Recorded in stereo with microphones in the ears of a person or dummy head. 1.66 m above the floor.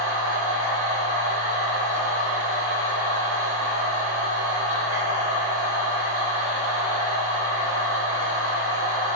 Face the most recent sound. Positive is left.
turn(degrees=25)  # may be behind; listen again after turning